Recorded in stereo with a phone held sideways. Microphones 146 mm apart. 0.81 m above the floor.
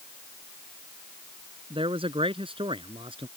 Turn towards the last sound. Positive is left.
turn(degrees=-35)  # may be behind; listen again after turning